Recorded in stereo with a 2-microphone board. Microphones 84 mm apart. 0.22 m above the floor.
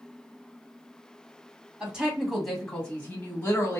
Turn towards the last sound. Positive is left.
turn(degrees=35)  # may be behind; listen again after turning